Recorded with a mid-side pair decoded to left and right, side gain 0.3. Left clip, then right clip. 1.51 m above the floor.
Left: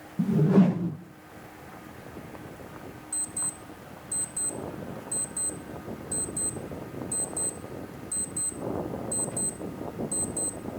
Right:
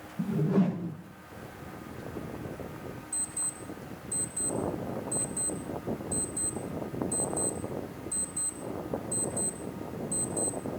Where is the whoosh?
55° left, 0.8 m.